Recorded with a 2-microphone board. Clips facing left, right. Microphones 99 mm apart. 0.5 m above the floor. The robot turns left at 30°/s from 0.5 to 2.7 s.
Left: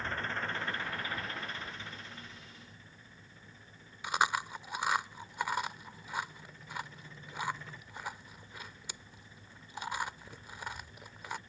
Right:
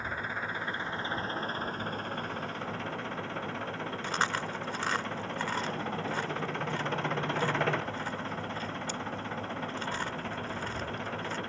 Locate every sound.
0.0 s an engine running: 10° right; by 11.5 s 75° right
4.0 s chewing: 10° left (ahead or behind)